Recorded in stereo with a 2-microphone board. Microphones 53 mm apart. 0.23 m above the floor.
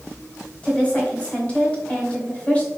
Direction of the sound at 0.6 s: 20° left (ahead or behind).